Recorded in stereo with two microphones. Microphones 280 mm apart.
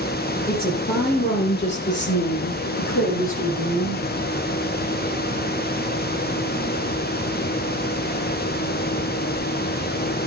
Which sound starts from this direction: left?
A woman speaking, at 0.5 s.